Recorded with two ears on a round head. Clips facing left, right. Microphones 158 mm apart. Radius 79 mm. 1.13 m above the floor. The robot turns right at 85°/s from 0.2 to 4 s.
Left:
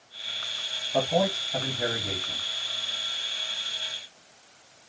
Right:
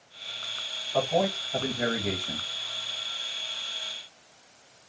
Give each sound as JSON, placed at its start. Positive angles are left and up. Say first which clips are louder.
{"t": 0.9, "sound": "a man speaking", "louder": "left 1 dB", "azimuth_deg": 145, "distance_m": 1.6}